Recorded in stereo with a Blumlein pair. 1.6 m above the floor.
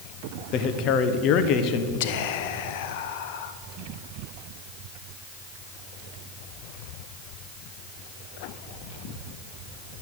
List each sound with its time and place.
0.5 s a man speaking: 35° left, 1.2 m
2.0 s whispering: 50° left, 1.1 m